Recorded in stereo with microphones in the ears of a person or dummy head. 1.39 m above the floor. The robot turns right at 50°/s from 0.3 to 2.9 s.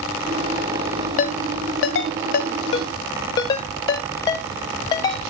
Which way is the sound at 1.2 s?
45° left (ahead or behind).